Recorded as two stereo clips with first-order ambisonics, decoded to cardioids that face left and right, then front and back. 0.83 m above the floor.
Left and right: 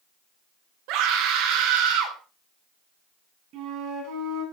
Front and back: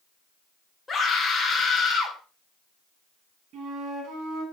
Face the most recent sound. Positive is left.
turn(degrees=-130)